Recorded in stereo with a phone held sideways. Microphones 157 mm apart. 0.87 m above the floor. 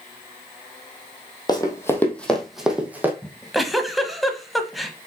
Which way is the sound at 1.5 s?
25° left (ahead or behind).